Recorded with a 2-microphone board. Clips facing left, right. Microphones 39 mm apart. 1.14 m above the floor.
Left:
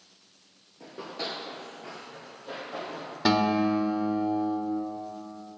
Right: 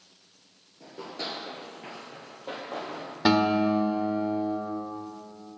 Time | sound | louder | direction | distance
0.8 | running footsteps | left 1 dB | 20° left (ahead or behind) | 1.4 m
3.2 | a guitar | right 1 dB | 10° right (ahead or behind) | 0.8 m